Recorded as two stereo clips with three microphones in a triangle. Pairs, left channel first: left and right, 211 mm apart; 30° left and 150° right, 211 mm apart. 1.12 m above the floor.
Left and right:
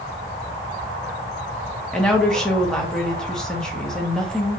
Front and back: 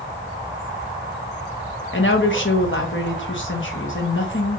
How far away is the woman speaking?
About 1.0 m.